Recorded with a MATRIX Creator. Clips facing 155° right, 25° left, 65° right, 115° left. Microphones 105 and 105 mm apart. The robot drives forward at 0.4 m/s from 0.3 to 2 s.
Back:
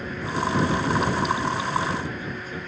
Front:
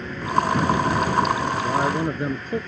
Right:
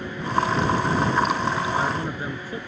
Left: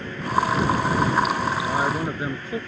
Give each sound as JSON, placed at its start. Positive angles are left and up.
{"t": 1.6, "sound": "a man speaking", "azimuth_deg": 45}